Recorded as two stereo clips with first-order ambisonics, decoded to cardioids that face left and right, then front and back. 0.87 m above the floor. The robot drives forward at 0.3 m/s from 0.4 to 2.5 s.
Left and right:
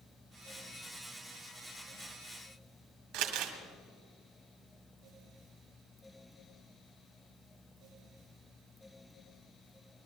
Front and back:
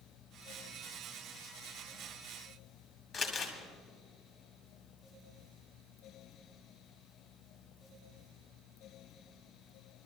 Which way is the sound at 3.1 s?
80° right.